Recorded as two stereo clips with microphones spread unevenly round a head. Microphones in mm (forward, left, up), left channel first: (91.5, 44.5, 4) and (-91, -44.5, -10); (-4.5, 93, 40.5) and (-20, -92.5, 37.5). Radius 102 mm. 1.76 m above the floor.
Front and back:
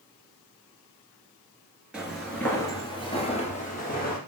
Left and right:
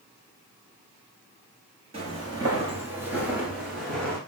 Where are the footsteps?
65° right, 1.9 m; by 4.2 s straight ahead, 2.5 m.